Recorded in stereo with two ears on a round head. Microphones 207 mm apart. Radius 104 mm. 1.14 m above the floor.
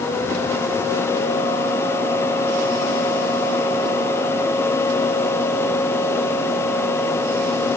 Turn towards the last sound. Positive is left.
No sound to turn to.